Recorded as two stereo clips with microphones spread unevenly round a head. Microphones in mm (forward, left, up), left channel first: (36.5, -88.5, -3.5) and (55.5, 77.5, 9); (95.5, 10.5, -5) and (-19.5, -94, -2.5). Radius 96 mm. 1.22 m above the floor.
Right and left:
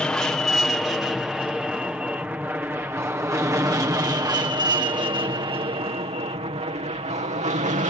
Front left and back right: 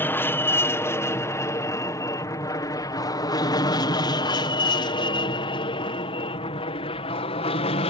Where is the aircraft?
20° right; by 7.9 s 65° left.